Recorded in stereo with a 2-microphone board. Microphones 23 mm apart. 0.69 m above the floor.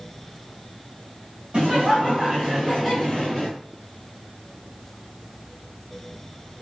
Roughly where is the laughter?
Right.